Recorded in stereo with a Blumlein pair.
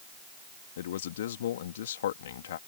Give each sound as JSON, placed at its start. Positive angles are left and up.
{"t": 0.8, "sound": "a man speaking", "azimuth_deg": 60}